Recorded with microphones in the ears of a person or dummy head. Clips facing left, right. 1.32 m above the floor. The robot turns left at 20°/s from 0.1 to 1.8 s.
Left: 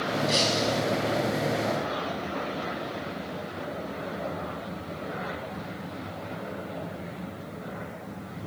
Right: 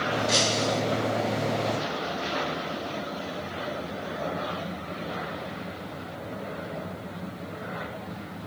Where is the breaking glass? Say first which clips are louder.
Even; 20° right (ahead or behind), 3.5 m; by 0.8 s 10° right (ahead or behind), 3.5 m.